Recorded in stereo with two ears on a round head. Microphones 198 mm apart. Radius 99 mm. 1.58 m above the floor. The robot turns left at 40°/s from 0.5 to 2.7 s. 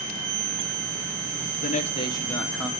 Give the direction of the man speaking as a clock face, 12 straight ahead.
11 o'clock.